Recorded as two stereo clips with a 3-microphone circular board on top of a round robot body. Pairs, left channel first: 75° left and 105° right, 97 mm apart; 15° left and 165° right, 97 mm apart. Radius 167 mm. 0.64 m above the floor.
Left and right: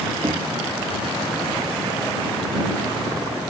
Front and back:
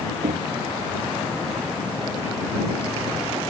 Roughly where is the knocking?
Behind.